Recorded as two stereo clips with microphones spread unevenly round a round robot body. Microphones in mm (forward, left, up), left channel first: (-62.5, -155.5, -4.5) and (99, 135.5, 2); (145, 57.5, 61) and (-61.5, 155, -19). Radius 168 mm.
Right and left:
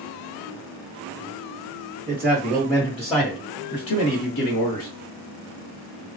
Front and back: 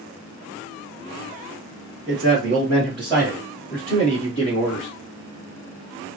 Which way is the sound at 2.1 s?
140° left.